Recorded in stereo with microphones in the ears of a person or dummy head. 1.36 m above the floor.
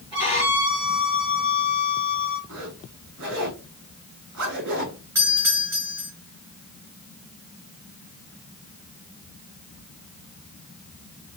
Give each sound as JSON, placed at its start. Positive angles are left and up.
{"t": 0.1, "sound": "a violin", "side_deg": -25, "distance_m": 2.5}
{"t": 2.5, "sound": "a zipper", "side_deg": -65, "distance_m": 2.5}
{"t": 5.2, "sound": "a doorbell", "side_deg": -15, "distance_m": 2.0}